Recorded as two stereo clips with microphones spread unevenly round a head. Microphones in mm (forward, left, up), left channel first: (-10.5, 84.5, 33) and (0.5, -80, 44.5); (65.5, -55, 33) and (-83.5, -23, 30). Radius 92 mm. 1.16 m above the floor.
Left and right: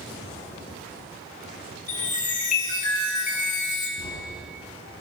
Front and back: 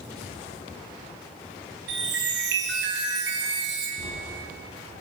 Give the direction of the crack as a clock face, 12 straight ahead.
10 o'clock.